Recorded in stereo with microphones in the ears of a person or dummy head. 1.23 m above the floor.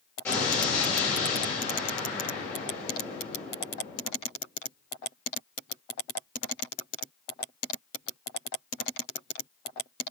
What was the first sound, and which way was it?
An explosion, 5° left (ahead or behind).